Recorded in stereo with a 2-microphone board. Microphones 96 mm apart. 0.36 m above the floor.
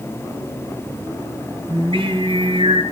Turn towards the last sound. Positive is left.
turn(degrees=-65)  # may be behind; listen again after turning